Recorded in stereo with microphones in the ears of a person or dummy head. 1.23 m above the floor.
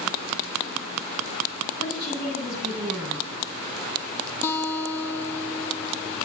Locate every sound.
1.8 s a woman speaking: 65° left (ahead or behind), 8.5 m
4.4 s a guitar: 15° left (ahead or behind), 0.7 m